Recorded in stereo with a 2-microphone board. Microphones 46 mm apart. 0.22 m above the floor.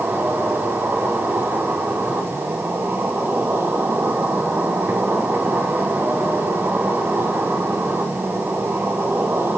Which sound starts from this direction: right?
An insect, at 0.0 s.